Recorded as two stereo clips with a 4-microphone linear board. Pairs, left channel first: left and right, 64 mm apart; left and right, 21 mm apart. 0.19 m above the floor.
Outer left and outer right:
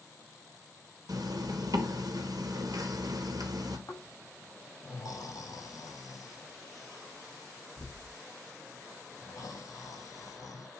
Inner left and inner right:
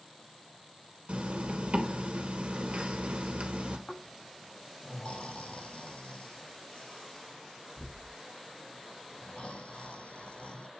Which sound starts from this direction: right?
A zipper, at 1.1 s.